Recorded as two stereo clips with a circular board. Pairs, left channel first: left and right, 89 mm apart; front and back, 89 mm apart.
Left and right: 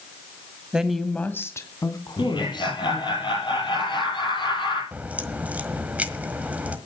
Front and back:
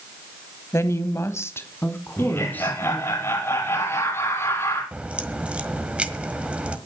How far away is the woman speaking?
About 1.3 m.